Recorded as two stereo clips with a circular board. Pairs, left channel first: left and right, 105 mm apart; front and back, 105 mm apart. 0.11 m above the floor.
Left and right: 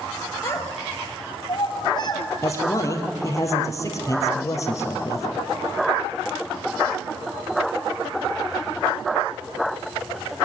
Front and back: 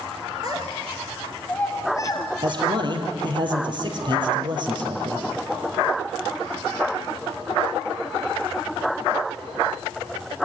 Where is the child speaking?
145° left, 1.6 m; by 2.3 s 45° left, 2 m.